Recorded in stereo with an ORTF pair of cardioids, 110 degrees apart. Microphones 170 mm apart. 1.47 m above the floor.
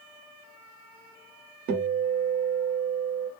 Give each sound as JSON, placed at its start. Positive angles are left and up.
{"t": 1.7, "sound": "a guitar", "azimuth_deg": -65, "distance_m": 1.2}